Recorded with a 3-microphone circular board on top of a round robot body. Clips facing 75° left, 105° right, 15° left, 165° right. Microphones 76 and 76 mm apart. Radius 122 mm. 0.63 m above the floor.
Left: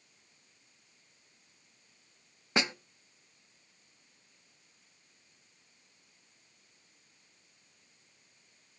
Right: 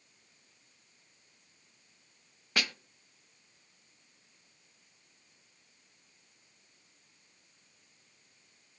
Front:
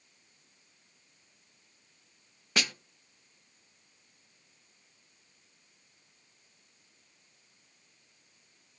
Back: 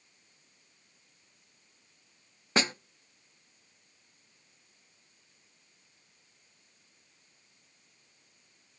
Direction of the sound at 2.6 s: 140° left.